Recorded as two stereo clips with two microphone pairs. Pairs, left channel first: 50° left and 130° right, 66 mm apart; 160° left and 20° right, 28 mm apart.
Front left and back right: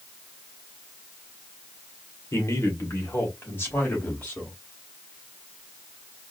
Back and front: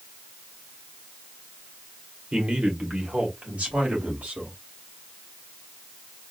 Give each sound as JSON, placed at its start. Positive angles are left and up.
{"t": 2.3, "sound": "a man speaking", "azimuth_deg": 15, "distance_m": 1.8}